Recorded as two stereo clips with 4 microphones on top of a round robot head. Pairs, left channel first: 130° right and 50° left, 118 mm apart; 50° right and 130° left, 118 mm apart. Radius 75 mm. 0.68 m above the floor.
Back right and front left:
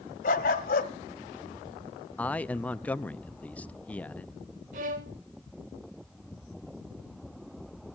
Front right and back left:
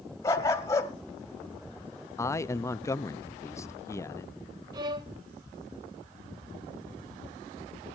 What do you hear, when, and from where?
0.2 s a dog barking: 115° right, 1.1 m
2.2 s a man speaking: 70° right, 0.5 m
4.7 s a violin: 70° left, 0.6 m